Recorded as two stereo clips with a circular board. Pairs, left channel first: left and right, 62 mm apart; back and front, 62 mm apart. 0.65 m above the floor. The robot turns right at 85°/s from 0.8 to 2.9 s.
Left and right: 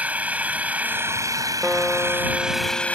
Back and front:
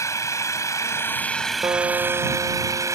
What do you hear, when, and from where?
0.0 s an engine running: 155° right; by 3.0 s 20° left
1.6 s a guitar: 5° right; by 3.0 s 100° left